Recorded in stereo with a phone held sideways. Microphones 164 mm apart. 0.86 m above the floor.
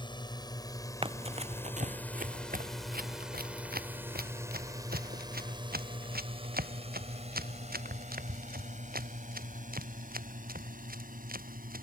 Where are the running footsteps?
35° right (ahead or behind); by 11.8 s 70° right (ahead or behind).